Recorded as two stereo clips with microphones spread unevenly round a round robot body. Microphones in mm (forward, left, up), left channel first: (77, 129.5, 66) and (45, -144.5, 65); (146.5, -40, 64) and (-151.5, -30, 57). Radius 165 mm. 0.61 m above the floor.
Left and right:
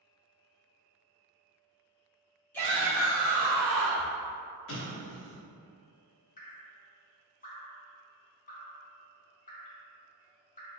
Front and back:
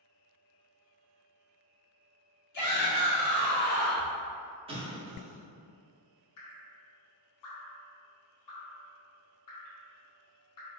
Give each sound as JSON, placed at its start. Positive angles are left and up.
{"t": 2.5, "sound": "a shout", "azimuth_deg": 5, "distance_m": 1.4}
{"t": 4.7, "sound": "an explosion", "azimuth_deg": 110, "distance_m": 0.9}
{"t": 6.4, "sound": "dripping", "azimuth_deg": 20, "distance_m": 0.9}